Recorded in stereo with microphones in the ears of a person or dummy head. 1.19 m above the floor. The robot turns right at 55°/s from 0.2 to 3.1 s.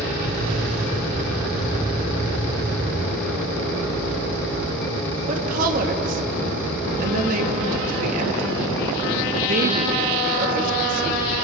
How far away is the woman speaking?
About 2.5 m.